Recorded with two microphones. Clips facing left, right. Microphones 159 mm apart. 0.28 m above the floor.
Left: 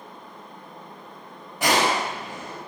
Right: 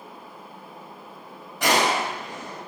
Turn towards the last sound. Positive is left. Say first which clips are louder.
# even
turn(degrees=10)  # may be behind; listen again after turning